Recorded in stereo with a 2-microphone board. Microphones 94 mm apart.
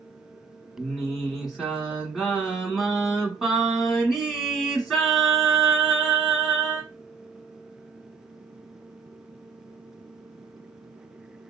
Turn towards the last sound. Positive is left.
turn(degrees=0)  # may be behind; listen again after turning